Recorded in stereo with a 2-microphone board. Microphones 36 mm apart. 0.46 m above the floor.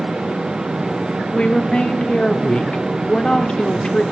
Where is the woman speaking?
25° left (ahead or behind), 0.9 m.